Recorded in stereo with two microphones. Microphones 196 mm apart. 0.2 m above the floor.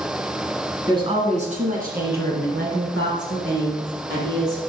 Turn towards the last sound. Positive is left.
turn(degrees=-70)  # may be behind; listen again after turning